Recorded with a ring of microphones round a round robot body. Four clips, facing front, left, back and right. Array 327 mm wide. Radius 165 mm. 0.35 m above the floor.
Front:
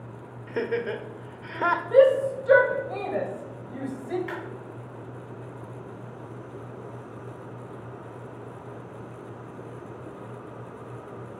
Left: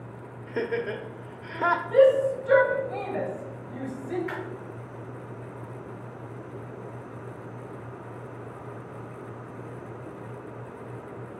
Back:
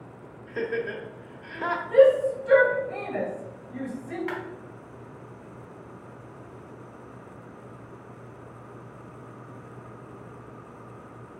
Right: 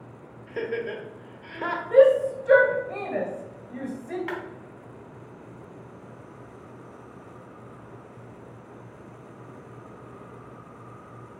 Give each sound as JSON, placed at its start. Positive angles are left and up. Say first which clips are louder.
{"t": 0.5, "sound": "laughter", "louder": "left 1 dB, front 2 dB", "azimuth_deg": 30, "distance_m": 1.0}
{"t": 1.9, "sound": "a shout", "louder": "right 3 dB, back 1 dB", "azimuth_deg": -35, "distance_m": 2.5}
{"t": 4.3, "sound": "a clap", "louder": "right 2 dB, back 1 dB", "azimuth_deg": -115, "distance_m": 2.5}